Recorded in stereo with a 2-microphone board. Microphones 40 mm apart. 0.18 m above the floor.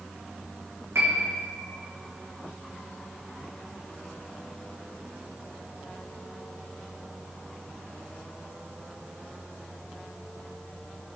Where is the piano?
75° right (ahead or behind), 3 m.